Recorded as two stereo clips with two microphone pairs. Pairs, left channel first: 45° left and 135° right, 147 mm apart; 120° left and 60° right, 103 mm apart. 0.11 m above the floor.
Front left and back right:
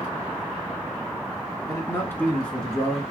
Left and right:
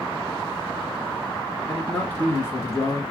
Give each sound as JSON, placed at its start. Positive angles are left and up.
{"t": 1.7, "sound": "a man speaking", "azimuth_deg": 50, "distance_m": 1.1}